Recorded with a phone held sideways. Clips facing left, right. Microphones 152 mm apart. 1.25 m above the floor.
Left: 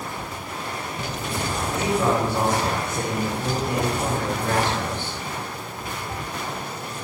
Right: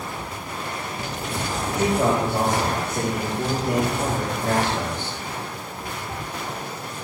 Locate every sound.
1.7 s a man speaking: 70° right (ahead or behind), 6 m